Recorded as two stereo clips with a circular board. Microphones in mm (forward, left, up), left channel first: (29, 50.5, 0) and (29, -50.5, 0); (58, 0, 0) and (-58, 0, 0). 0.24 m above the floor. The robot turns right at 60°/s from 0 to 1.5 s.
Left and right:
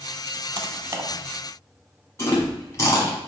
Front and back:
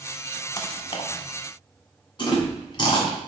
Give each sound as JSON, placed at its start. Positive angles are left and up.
{"t": 0.6, "sound": "typing on a keyboard", "azimuth_deg": -55, "distance_m": 0.6}
{"t": 2.2, "sound": "chewing", "azimuth_deg": 35, "distance_m": 1.4}